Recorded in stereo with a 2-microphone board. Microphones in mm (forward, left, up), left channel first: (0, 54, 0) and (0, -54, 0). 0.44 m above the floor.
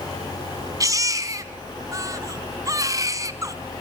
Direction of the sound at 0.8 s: 30° right (ahead or behind).